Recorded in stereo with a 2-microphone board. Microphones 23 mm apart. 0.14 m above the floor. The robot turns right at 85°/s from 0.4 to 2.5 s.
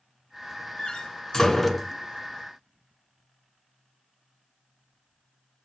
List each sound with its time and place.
0.8 s a door slam: 40° left (ahead or behind), 1.0 m; by 1.9 s 5° right (ahead or behind), 1.0 m